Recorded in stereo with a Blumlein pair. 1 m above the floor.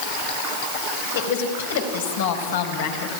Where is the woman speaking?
60° left, 4 m.